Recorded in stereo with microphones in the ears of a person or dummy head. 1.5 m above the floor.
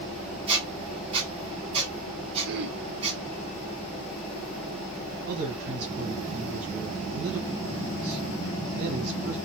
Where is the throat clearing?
60° right (ahead or behind), 1.1 m.